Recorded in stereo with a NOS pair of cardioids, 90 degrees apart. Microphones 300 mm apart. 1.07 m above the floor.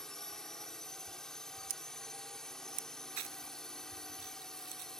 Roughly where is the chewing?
Ahead right.